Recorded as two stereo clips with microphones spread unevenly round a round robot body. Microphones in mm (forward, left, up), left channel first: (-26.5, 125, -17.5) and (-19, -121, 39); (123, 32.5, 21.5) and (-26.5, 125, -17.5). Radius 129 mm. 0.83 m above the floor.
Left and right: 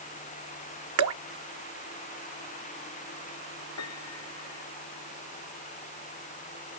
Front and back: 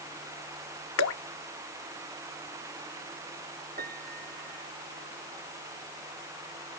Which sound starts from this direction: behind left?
A piano, at 3.8 s.